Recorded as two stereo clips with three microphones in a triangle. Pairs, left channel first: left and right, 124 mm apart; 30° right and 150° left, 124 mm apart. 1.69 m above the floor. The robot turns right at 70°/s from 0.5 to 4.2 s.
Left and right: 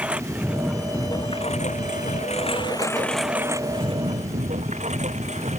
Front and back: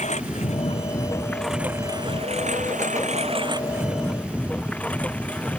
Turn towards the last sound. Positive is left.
turn(degrees=-110)